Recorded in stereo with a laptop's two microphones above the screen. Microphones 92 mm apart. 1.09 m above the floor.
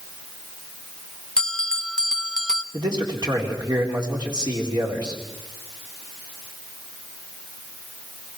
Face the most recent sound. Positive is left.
turn(degrees=-50)  # may be behind; listen again after turning